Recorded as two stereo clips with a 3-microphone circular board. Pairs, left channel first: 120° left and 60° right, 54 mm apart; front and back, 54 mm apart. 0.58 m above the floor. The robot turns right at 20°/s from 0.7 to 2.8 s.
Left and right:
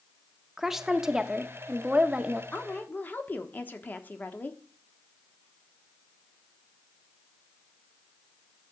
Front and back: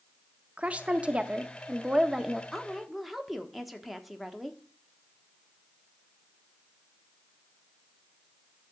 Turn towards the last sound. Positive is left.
turn(degrees=90)